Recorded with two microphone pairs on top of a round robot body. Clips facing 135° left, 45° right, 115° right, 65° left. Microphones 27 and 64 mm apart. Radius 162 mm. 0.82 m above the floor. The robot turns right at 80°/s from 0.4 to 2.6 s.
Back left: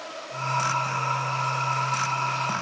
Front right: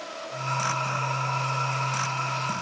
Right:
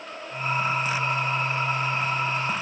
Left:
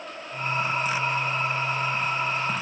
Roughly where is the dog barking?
I don't hear a dog barking.